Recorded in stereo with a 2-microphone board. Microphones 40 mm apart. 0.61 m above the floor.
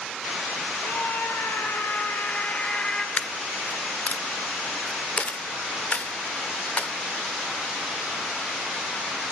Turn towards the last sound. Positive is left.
turn(degrees=35)  # may be behind; listen again after turning